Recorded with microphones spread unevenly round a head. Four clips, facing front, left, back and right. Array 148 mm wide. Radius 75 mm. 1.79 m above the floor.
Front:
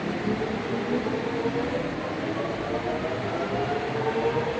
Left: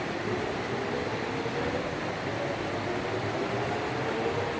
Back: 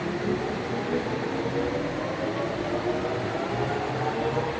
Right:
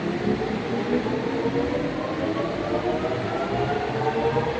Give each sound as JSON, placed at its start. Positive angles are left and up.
{"t": 0.0, "sound": "a machine running", "azimuth_deg": -80, "distance_m": 1.1}